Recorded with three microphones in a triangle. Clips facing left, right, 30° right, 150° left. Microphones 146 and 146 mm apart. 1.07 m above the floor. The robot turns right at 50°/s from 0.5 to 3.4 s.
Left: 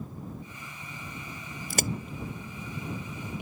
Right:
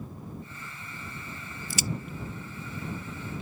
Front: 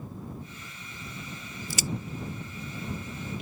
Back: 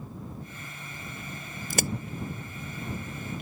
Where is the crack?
115° left; by 1.9 s 125° left.